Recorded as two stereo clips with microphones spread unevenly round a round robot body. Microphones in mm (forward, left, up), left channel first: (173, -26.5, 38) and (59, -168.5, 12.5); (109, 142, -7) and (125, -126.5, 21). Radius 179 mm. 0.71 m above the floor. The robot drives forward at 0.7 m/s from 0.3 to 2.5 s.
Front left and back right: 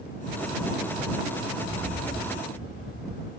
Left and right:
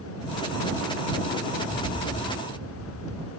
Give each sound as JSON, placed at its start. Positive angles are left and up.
{"t": 1.6, "sound": "a rattle", "azimuth_deg": -170, "distance_m": 1.7}